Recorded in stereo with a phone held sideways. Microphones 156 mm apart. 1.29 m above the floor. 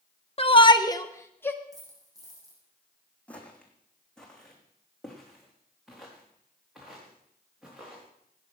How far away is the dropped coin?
About 6.5 m.